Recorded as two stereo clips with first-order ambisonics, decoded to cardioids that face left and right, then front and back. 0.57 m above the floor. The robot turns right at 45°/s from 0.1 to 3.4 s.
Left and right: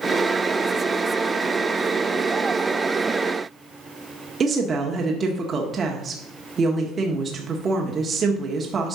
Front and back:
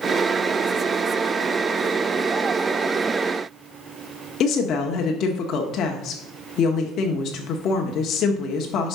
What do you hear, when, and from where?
4.4 s a woman speaking: 30° right, 1.0 m